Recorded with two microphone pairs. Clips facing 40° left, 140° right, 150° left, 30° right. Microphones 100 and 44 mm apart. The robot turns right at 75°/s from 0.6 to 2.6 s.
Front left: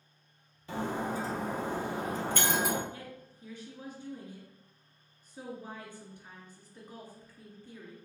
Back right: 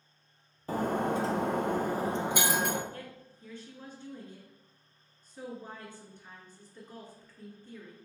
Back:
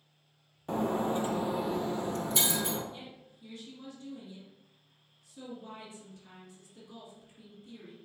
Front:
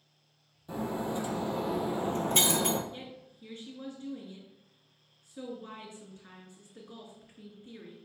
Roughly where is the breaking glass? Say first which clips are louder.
Back right 4 dB, back 4 dB; behind.